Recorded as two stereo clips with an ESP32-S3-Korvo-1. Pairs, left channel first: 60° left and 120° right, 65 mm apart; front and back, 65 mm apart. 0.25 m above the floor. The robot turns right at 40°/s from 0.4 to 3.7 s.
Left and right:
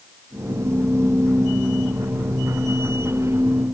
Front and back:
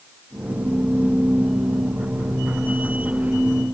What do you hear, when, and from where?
Only background noise.